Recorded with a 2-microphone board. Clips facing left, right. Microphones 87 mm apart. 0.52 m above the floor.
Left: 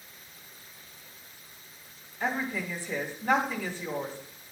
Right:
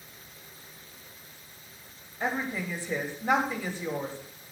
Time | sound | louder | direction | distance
2.2 | a woman speaking | even | 20° right (ahead or behind) | 3 m